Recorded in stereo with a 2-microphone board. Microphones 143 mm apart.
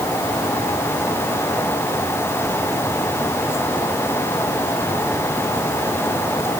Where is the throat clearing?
No throat clearing in this recording.